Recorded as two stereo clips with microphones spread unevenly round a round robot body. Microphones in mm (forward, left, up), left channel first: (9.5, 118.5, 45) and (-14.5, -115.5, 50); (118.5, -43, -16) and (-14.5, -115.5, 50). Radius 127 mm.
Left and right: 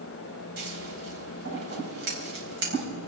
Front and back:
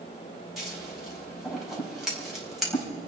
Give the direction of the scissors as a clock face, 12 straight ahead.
2 o'clock.